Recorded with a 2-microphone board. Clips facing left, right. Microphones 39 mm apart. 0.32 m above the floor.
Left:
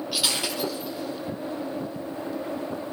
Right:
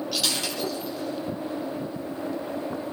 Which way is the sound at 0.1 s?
10° left (ahead or behind).